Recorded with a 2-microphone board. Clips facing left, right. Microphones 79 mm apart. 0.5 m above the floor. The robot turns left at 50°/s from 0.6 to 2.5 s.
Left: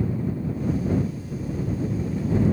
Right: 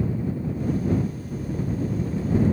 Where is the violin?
No violin in this recording.